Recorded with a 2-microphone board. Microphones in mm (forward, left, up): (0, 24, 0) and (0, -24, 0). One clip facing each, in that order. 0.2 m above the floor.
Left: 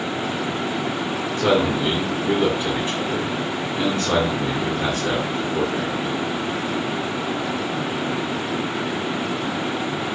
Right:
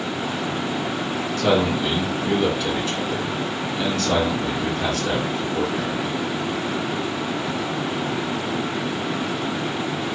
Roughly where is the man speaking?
Left.